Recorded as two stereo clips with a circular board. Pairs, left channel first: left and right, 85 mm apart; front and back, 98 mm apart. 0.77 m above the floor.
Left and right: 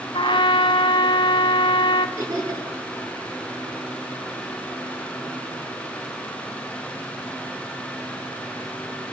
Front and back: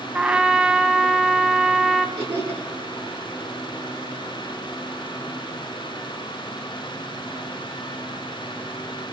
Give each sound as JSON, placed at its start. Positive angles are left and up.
{"t": 0.1, "sound": "a trumpet", "azimuth_deg": 100, "distance_m": 2.0}
{"t": 2.2, "sound": "laughter", "azimuth_deg": -150, "distance_m": 10.0}